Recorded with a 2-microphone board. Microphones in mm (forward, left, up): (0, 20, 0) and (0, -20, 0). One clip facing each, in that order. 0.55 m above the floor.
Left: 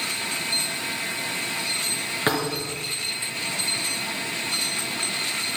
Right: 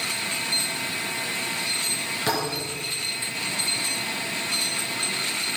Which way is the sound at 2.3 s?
35° left (ahead or behind).